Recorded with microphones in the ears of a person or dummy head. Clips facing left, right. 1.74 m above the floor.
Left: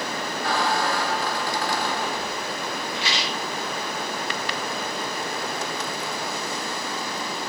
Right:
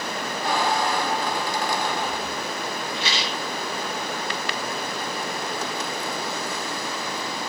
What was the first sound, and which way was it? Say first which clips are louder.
A squeak: right 1 dB; 15° right (ahead or behind).